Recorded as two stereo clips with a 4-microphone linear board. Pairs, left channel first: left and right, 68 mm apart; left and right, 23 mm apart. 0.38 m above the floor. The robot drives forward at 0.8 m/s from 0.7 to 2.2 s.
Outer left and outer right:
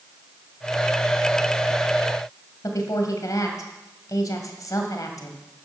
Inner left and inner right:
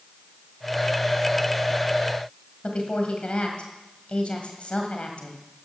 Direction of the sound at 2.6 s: 55° left (ahead or behind).